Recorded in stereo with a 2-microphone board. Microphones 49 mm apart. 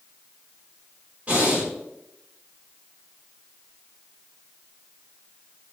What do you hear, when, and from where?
1.3 s breathing: 30° right (ahead or behind), 1.0 m